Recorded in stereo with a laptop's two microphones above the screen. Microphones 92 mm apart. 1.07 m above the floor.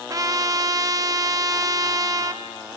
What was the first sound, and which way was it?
A trumpet, 40° right (ahead or behind).